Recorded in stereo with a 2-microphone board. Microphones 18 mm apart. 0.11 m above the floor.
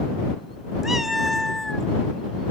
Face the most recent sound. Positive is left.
turn(degrees=30)  # may be behind; listen again after turning